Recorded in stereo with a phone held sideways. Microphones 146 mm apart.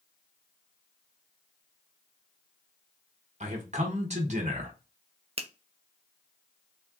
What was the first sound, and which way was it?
A man speaking, 55° right (ahead or behind).